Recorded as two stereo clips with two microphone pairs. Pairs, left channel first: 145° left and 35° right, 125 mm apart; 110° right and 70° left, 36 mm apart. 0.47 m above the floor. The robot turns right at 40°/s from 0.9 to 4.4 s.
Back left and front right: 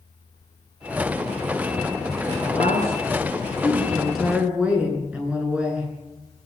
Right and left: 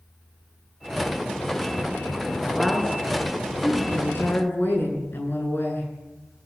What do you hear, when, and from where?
2.4 s a woman speaking: 165° left, 7 m; by 5.9 s 115° right, 7 m